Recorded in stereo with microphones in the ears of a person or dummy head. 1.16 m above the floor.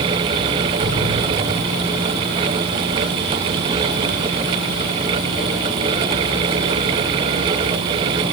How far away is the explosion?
About 3 m.